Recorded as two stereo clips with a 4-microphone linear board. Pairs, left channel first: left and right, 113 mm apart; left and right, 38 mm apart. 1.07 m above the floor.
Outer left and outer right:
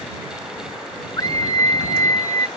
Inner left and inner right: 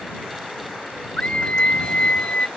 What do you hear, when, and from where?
1.2 s a scream: 35° left (ahead or behind); by 2.5 s 30° left (ahead or behind)